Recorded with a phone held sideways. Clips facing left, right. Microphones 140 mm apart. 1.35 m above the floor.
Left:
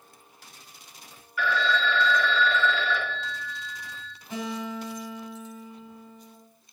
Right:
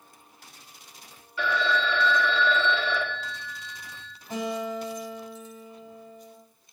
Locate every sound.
1.4 s a phone ringing: 25° right (ahead or behind), 1.5 m
4.3 s a guitar: 40° right (ahead or behind), 4 m